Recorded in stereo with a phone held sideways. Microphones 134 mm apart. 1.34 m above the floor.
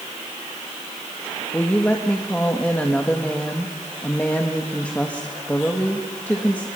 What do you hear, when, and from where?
1.5 s a woman speaking: 10° left (ahead or behind), 1.4 m